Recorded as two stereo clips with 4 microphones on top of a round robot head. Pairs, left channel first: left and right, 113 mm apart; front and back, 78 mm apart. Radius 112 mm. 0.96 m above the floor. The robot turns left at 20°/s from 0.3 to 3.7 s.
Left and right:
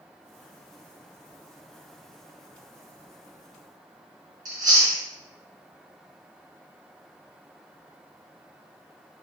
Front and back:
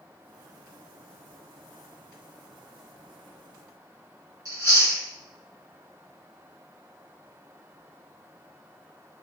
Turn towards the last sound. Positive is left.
turn(degrees=-125)